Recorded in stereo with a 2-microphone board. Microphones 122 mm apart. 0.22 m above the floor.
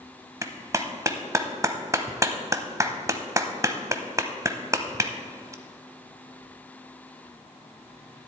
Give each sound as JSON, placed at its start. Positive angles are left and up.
{"t": 0.4, "sound": "a clap", "side_deg": -25, "distance_m": 0.8}